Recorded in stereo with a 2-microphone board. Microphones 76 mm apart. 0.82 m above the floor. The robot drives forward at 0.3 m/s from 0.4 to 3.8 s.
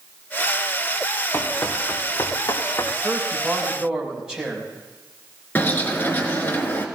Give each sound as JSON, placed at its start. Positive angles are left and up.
{"t": 1.3, "sound": "running footsteps", "side_deg": 35, "distance_m": 2.5}
{"t": 3.0, "sound": "a man speaking", "side_deg": -10, "distance_m": 5.5}
{"t": 5.5, "sound": "a bird", "side_deg": 25, "distance_m": 2.5}